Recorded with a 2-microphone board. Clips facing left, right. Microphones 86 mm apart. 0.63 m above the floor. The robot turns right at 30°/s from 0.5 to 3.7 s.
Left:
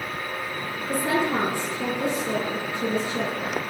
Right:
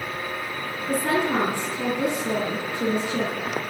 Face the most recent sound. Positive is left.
turn(degrees=-45)